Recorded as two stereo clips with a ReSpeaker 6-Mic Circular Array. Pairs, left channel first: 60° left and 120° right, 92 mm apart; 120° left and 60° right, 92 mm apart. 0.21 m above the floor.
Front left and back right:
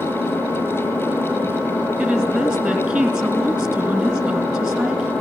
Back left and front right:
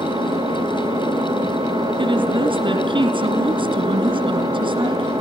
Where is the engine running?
15° right, 4.5 m.